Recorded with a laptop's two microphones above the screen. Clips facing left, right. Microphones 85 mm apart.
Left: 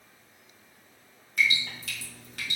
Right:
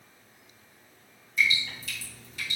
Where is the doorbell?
I don't hear a doorbell.